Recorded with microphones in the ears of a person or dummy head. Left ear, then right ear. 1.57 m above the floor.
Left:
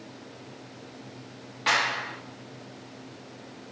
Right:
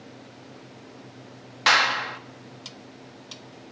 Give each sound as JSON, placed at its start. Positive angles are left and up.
{"t": 1.7, "sound": "a clap", "side_deg": -55, "distance_m": 2.0}